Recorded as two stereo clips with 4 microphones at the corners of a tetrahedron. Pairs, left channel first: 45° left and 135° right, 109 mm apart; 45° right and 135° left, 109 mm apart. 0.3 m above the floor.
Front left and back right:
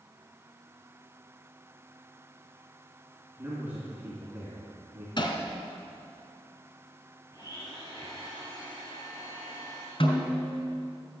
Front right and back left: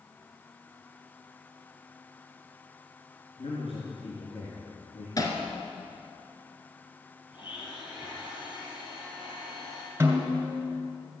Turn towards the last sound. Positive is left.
turn(degrees=70)